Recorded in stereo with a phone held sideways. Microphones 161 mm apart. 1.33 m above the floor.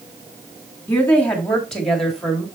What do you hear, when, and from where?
0.9 s a woman speaking: 10° left (ahead or behind), 3 m; by 2.4 s centre (ahead or behind), 3.5 m